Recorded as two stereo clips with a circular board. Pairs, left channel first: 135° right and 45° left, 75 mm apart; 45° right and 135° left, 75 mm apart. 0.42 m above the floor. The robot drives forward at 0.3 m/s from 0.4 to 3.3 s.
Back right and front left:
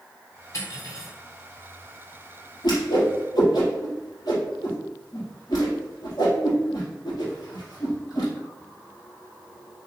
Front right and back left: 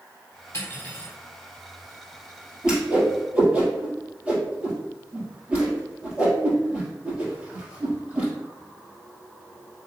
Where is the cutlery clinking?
95° right, 1.5 m; by 1.1 s 100° right, 1.6 m.